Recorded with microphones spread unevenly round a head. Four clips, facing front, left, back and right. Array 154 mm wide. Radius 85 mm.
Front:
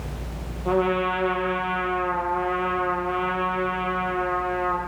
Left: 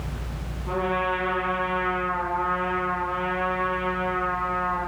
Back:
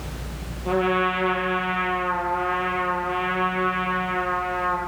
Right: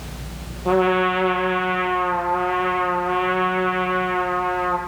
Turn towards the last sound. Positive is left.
turn(degrees=-60)